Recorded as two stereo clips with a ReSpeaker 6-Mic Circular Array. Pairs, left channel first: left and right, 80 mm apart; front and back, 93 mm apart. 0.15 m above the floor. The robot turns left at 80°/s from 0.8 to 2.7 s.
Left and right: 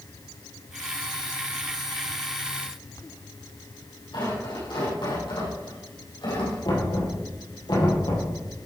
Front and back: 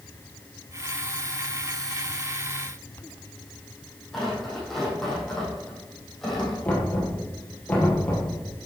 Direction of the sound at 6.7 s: 75° left.